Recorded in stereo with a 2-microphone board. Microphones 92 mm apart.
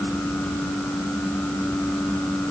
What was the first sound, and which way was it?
Only background noise.